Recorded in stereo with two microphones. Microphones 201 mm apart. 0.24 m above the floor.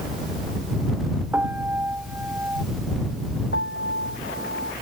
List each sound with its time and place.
1.3 s a piano: 10° right (ahead or behind)
3.5 s a piano: 80° left